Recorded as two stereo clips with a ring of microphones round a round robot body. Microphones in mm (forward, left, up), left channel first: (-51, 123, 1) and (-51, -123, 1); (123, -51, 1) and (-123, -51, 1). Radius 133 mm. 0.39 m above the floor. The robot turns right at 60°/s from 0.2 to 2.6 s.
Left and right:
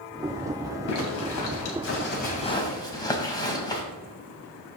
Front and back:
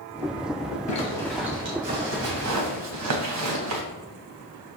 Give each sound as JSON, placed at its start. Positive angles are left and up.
{"t": 0.9, "sound": "a zipper", "azimuth_deg": 60, "distance_m": 2.5}